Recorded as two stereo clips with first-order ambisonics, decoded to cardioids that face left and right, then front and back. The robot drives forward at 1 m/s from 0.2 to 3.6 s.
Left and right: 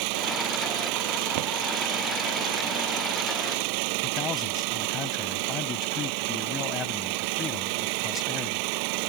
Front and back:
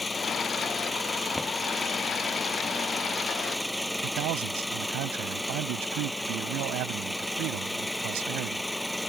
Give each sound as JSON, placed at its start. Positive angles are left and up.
{"t": 0.0, "sound": "an engine running", "azimuth_deg": -80}
{"t": 1.4, "sound": "a drawer", "azimuth_deg": -85}
{"t": 4.0, "sound": "a man speaking", "azimuth_deg": 155}